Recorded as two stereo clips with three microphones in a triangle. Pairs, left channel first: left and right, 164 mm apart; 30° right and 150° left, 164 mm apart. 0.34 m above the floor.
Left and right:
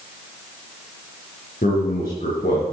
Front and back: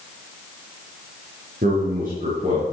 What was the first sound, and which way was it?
A man speaking, 125° left.